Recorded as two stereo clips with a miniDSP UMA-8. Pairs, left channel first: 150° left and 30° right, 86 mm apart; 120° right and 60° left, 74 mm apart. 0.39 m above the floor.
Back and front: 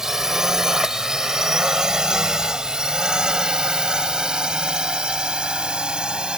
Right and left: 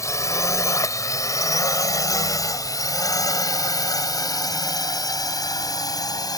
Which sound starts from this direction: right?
A drone, at 0.0 s.